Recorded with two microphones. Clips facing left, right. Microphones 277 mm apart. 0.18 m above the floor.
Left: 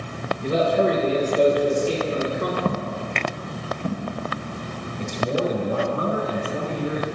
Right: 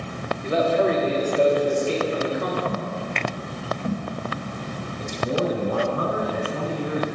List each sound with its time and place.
0.4 s a man speaking: 45° left (ahead or behind), 3 m
2.6 s footsteps: 45° left (ahead or behind), 1.3 m; by 4.1 s 30° left (ahead or behind), 3.5 m
5.0 s a man speaking: 30° left (ahead or behind), 1.7 m